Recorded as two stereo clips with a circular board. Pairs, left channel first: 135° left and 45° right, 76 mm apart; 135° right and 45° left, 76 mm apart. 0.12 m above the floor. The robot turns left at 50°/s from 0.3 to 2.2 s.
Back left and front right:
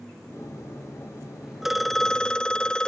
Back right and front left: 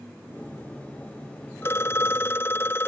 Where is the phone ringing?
125° right; by 2.9 s 155° right.